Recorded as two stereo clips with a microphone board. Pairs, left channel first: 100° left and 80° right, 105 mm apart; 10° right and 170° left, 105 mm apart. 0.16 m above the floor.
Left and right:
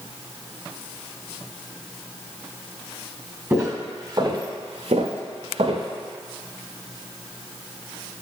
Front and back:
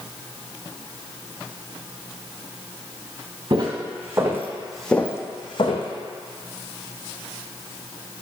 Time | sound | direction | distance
3.5 | footsteps | 140° right | 1.2 m